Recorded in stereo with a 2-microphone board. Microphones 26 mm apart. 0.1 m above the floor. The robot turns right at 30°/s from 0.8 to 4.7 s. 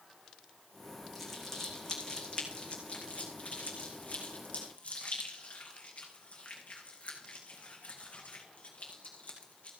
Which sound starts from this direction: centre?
Crumpling, at 1.1 s.